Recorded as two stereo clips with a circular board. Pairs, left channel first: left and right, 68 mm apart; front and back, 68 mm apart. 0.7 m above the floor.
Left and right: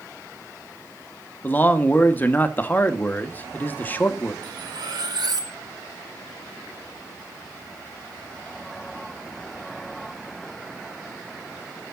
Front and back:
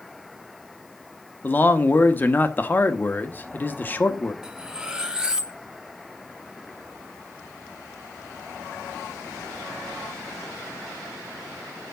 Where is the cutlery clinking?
100° right, 1.0 m.